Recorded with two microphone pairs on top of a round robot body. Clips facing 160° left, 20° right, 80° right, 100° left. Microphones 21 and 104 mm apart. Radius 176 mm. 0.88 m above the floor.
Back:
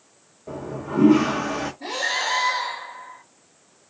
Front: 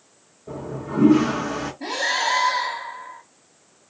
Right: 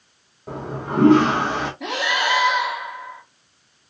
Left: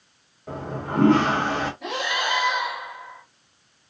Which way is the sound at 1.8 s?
75° right.